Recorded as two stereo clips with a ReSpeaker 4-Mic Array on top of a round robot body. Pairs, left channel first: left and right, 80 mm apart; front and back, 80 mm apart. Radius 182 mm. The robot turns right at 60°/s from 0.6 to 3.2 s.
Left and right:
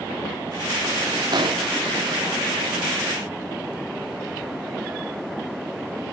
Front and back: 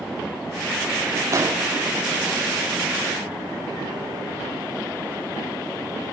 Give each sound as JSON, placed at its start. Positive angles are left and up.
{"t": 1.3, "sound": "an explosion", "azimuth_deg": -130, "distance_m": 1.4}